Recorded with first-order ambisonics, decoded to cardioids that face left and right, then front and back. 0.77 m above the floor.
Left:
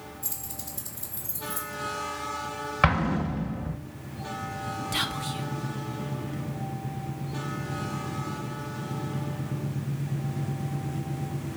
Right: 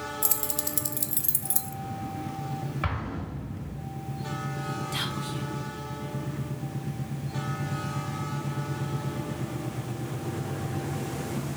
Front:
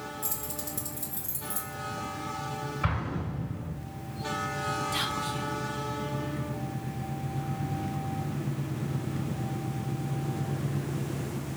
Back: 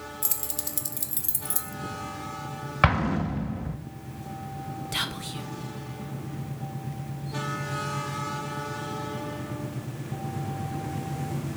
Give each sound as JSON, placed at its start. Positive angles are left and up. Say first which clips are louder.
{"t": 0.2, "sound": "keys jangling", "louder": "right 7 dB, back 2 dB", "azimuth_deg": -125, "distance_m": 0.6}
{"t": 2.8, "sound": "an explosion", "louder": "left 12 dB, back 13 dB", "azimuth_deg": 145, "distance_m": 0.5}
{"t": 4.9, "sound": "whispering", "louder": "left 5 dB, front 1 dB", "azimuth_deg": 130, "distance_m": 0.5}